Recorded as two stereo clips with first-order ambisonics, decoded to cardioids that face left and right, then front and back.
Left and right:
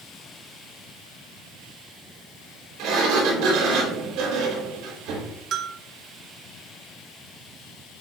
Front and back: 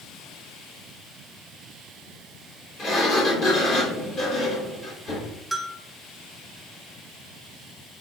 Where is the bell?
90° right, 1.0 m.